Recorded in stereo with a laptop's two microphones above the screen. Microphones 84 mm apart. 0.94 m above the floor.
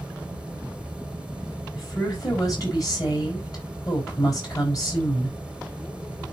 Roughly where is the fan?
Centre.